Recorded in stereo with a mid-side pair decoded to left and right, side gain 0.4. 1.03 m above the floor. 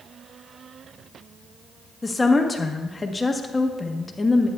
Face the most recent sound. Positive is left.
turn(degrees=25)